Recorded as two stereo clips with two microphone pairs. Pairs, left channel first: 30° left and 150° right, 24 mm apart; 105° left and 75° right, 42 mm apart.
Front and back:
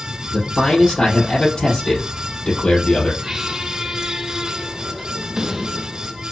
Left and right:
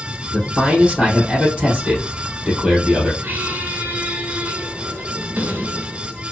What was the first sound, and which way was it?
A man speaking, straight ahead.